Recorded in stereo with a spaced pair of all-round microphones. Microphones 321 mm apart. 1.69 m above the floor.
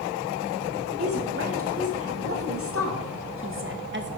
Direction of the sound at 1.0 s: 45° right (ahead or behind).